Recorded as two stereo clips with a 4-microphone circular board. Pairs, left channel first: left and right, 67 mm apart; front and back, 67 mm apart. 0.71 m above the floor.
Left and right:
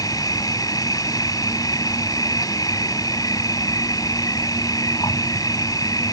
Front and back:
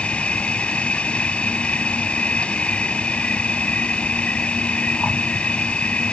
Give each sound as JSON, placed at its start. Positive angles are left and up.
{"t": 0.0, "sound": "an insect", "azimuth_deg": 75}